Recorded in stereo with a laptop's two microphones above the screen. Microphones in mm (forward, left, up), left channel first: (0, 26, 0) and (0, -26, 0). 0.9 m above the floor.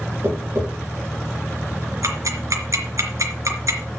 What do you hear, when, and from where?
0.2 s tapping: 75° right (ahead or behind), 7.5 m
2.0 s ticking: 80° right, 3.5 m